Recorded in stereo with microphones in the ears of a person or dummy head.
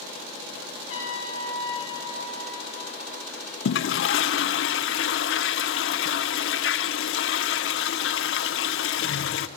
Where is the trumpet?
40° left (ahead or behind), 5.5 m.